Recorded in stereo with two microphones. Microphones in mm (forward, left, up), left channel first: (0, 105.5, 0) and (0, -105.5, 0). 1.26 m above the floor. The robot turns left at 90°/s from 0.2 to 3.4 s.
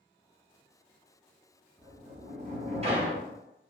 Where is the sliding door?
30° right, 0.8 m; by 3.3 s 170° right, 0.8 m.